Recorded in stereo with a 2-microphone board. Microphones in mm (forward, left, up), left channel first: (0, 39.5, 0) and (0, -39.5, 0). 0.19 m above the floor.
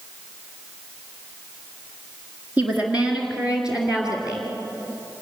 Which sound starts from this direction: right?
A woman speaking, at 2.6 s.